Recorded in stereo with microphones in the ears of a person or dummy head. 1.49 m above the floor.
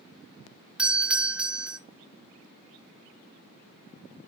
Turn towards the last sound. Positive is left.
turn(degrees=-5)  # may be behind; listen again after turning